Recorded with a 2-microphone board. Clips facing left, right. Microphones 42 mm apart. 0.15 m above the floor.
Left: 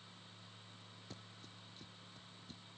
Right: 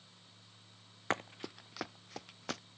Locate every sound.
1.1 s running footsteps: 70° right (ahead or behind); by 2.6 s 75° right (ahead or behind)